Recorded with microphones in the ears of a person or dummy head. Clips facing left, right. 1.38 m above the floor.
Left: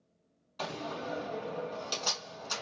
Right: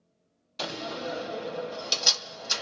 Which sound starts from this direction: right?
A door slam, at 0.6 s.